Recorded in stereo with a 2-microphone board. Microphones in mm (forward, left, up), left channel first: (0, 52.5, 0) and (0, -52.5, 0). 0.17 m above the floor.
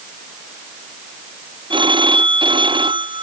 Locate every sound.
1.7 s a phone ringing: 55° right (ahead or behind)